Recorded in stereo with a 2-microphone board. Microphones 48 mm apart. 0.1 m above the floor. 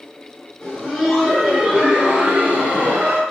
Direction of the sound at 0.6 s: 15° left (ahead or behind).